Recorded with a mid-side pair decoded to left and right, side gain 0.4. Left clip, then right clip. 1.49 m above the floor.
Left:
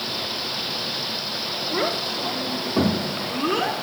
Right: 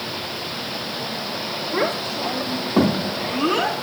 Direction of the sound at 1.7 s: 35° right.